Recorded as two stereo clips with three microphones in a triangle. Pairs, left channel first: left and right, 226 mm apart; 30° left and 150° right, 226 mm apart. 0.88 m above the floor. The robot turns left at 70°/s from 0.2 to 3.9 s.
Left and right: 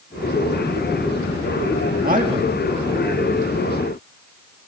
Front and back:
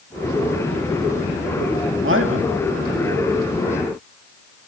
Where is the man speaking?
135° right, 1.9 m; by 2.6 s 170° right, 1.9 m.